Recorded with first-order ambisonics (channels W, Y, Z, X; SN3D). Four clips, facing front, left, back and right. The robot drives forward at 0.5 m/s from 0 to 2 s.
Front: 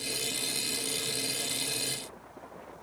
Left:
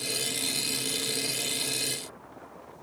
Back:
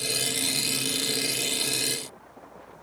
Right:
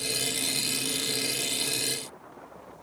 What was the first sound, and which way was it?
Only background noise.